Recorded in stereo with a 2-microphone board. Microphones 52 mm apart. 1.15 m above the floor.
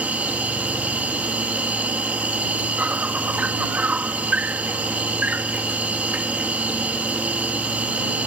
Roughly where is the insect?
Right.